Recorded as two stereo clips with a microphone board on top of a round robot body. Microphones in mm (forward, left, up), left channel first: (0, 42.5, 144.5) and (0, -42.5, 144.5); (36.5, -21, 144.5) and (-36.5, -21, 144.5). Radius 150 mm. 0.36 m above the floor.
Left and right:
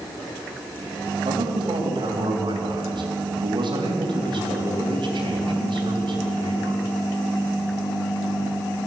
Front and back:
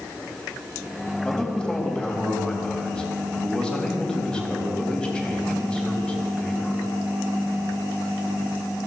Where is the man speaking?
80° right, 3.5 m.